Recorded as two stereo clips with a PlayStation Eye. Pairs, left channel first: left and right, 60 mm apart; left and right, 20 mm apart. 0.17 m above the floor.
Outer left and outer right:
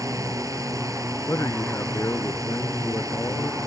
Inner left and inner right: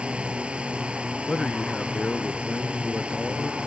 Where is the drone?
65° right (ahead or behind).